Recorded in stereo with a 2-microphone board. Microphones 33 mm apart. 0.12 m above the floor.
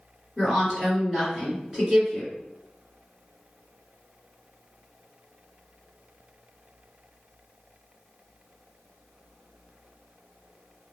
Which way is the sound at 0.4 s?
10° right (ahead or behind).